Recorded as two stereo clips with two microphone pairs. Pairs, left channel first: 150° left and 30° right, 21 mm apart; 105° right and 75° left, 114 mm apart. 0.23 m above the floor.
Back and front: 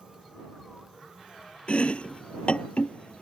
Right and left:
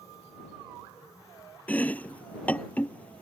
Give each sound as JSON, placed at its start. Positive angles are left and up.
{"t": 1.7, "sound": "chopping", "azimuth_deg": 175}